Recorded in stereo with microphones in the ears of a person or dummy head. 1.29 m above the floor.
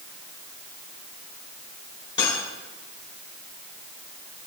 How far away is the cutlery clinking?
About 3 m.